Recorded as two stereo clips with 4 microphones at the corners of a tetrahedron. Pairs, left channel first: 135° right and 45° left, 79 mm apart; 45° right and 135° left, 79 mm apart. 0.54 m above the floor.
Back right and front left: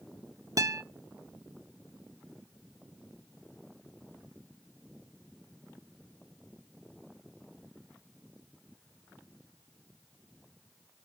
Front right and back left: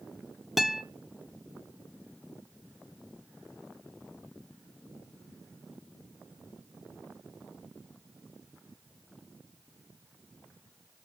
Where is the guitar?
50° left, 0.6 m.